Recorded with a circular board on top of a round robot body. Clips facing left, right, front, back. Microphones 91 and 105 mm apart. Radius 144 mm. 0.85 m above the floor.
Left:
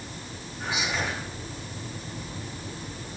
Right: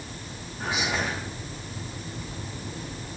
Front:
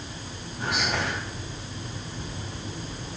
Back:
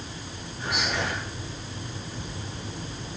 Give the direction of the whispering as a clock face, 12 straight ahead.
2 o'clock.